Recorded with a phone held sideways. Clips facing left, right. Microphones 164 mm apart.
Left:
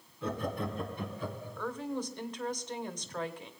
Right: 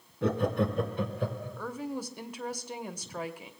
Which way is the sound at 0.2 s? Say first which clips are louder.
Right 7 dB; 65° right (ahead or behind).